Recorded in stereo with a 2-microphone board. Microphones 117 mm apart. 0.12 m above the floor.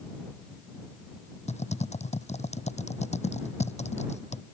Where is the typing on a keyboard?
75° left (ahead or behind).